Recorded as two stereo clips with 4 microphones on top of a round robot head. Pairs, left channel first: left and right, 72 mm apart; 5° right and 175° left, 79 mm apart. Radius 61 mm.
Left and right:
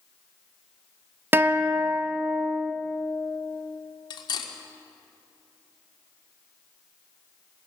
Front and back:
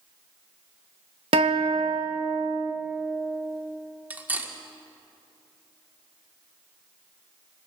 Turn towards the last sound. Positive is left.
turn(degrees=105)